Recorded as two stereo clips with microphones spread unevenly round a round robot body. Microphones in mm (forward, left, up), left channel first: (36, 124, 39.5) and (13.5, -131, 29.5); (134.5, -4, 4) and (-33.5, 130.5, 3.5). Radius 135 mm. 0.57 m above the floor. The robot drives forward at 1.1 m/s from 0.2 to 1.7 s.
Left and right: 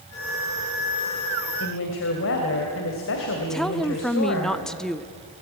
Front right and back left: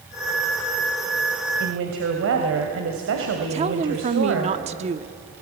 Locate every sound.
1.6 s a woman speaking: 125° left, 2.5 m
3.5 s a woman speaking: 175° left, 0.8 m